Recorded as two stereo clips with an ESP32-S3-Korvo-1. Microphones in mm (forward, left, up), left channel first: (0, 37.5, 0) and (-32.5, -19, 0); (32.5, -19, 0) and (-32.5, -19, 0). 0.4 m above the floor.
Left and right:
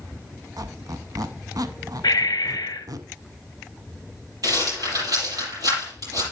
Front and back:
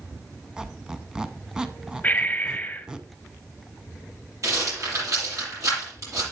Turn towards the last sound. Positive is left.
turn(degrees=-145)